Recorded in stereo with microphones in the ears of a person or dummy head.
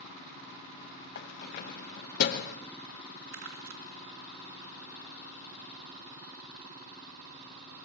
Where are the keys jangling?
50° left (ahead or behind), 1.0 m.